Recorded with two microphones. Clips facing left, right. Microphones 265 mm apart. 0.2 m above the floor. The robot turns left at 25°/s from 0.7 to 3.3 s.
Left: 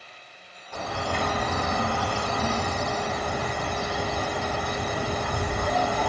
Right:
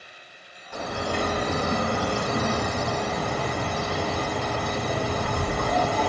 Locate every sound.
0.7 s a bird: 15° right, 2 m; by 6.1 s 75° right, 2 m